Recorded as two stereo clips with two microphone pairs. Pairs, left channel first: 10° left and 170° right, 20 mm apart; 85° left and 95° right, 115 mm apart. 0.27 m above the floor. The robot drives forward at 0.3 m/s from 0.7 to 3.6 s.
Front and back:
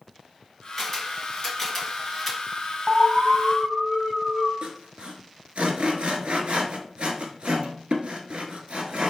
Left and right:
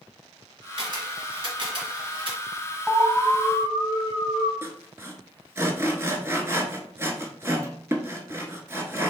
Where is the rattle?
No rattle in this recording.